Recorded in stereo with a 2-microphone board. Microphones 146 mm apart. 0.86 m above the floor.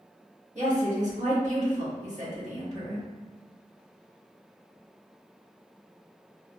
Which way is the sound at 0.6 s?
55° right (ahead or behind).